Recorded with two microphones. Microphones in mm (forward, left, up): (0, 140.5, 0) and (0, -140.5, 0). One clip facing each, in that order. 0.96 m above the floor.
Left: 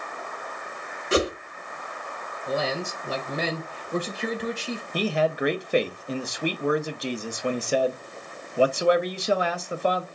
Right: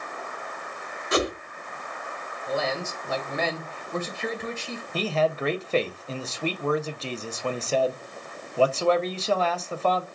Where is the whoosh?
30° left (ahead or behind), 1.0 m.